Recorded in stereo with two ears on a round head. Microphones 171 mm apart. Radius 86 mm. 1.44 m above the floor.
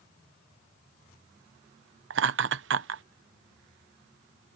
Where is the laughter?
65° right (ahead or behind).